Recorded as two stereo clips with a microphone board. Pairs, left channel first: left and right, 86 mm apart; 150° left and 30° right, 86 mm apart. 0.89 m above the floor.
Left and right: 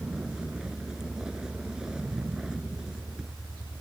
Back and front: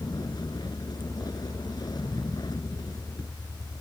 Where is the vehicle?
175° right.